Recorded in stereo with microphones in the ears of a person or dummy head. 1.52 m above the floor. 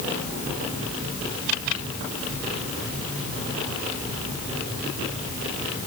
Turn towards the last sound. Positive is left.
No sound to turn to.